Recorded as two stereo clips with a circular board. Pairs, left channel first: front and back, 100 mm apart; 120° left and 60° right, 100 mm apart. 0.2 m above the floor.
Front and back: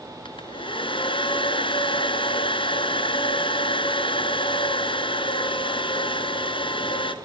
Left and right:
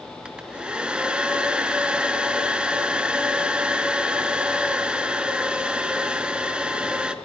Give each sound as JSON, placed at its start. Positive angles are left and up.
{"t": 0.2, "sound": "a hair dryer", "azimuth_deg": 20, "distance_m": 1.9}